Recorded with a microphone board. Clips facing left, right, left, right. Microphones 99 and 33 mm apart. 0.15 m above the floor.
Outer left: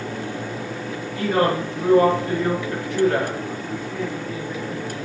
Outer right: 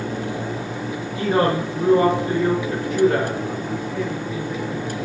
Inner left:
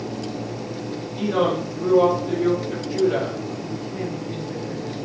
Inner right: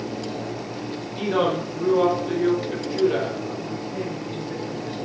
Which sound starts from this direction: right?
A woman speaking, at 1.1 s.